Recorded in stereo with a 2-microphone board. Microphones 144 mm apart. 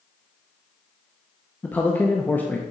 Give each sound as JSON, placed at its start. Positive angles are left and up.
{"t": 1.6, "sound": "a man speaking", "side_deg": 10, "distance_m": 0.6}